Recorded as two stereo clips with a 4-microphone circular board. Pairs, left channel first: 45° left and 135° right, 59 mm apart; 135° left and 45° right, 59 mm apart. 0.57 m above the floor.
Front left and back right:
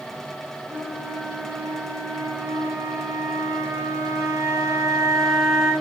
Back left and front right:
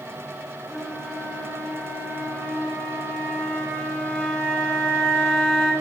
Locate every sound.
0.7 s a flute: 140° right, 6.5 m